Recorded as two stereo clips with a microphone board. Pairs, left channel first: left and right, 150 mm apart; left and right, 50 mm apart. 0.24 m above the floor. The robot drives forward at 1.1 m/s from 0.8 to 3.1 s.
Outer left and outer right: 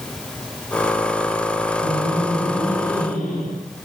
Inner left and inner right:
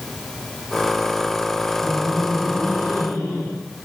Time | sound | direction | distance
1.8 | laughter | centre (ahead or behind) | 5 m